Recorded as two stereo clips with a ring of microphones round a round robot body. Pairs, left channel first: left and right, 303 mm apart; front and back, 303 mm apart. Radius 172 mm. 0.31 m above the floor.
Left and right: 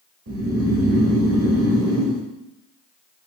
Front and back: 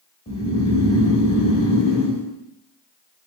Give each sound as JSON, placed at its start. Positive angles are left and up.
{"t": 0.3, "sound": "snoring", "azimuth_deg": -65, "distance_m": 1.1}